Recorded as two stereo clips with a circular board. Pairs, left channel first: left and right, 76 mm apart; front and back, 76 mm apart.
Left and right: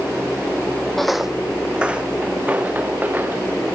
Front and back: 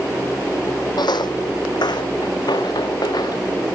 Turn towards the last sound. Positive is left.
turn(degrees=-25)